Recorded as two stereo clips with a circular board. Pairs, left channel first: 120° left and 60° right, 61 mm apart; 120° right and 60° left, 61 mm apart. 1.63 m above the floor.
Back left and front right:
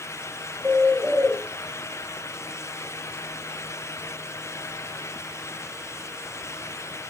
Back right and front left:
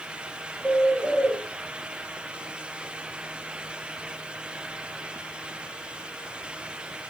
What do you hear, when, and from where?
0.6 s a bird: 15° left, 3.5 m